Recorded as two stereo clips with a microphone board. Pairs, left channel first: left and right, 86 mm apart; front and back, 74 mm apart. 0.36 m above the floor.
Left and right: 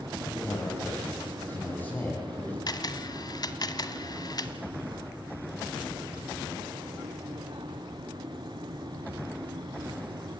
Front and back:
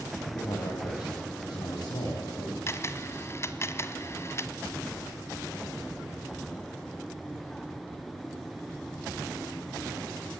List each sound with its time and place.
0.2 s a man speaking: 25° left, 4 m
2.7 s a camera shutter: 50° left, 1.1 m